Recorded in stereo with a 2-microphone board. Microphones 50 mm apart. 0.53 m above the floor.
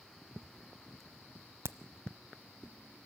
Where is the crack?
65° right (ahead or behind), 0.7 m.